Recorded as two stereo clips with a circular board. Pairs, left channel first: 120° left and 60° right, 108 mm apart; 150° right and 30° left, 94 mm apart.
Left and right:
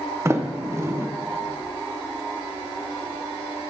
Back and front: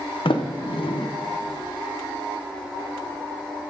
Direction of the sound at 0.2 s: 125° right.